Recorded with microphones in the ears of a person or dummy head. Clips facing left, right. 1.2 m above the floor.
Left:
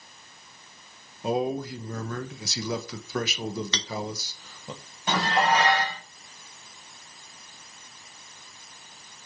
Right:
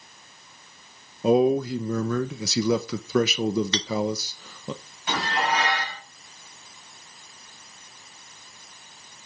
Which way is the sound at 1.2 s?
65° right (ahead or behind).